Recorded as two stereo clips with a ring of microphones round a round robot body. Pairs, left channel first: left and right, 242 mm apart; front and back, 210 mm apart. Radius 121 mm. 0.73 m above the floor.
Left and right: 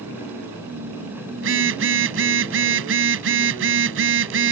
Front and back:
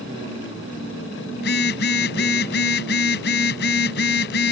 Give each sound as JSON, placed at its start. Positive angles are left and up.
{"t": 1.4, "sound": "a phone buzzing", "azimuth_deg": -50}